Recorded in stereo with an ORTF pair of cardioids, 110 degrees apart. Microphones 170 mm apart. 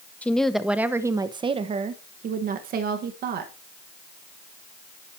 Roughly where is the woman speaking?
Ahead.